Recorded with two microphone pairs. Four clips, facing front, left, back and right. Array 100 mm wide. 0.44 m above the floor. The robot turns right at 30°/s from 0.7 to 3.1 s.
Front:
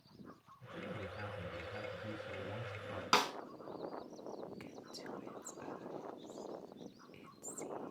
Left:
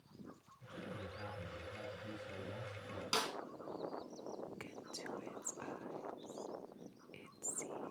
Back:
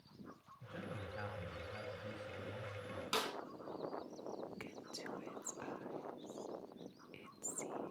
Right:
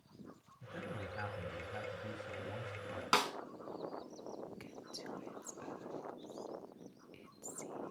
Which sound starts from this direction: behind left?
Whispering, at 4.6 s.